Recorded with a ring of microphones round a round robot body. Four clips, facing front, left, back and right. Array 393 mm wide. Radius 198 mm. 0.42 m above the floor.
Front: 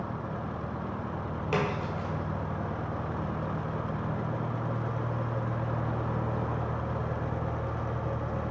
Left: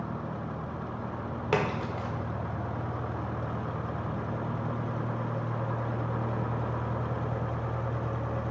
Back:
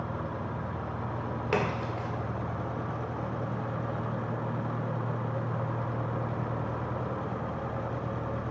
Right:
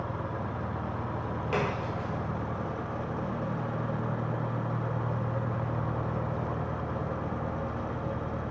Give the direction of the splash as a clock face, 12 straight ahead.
8 o'clock.